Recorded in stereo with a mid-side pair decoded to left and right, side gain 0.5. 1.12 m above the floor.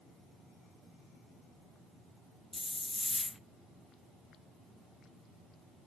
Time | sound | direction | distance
2.5 | a hiss | 15° left | 0.9 m